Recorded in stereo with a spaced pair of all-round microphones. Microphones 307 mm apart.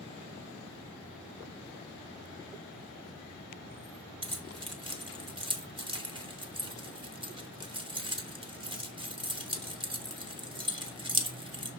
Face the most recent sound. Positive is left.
turn(degrees=-15)  # may be behind; listen again after turning